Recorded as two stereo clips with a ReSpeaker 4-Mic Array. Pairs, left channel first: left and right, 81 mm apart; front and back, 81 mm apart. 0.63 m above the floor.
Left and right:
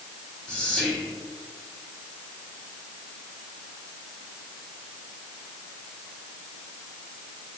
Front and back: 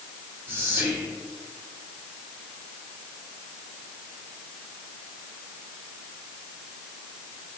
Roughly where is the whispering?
Behind left.